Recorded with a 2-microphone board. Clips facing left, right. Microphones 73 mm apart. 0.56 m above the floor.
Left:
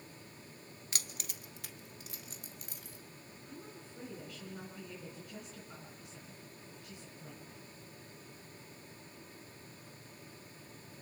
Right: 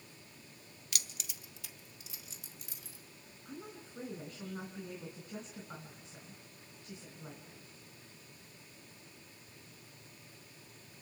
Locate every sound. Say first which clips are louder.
0.9 s keys jangling: even; 35° left (ahead or behind), 0.7 m; by 3.0 s 55° left (ahead or behind), 3 m
3.5 s a woman speaking: right 3 dB; 25° right (ahead or behind), 3 m